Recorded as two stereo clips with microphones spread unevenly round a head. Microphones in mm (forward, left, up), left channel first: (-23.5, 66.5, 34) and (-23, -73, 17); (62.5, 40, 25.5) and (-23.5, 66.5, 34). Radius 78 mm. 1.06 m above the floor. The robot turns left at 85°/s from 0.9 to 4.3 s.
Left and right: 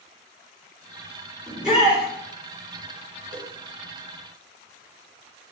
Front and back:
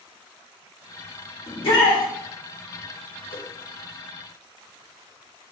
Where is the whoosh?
30° right, 1.0 m; by 3.5 s 40° right, 1.0 m.